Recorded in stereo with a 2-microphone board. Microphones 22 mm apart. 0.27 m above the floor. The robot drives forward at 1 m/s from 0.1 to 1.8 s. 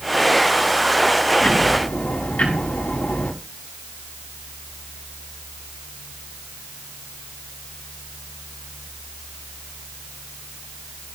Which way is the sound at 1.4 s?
85° left.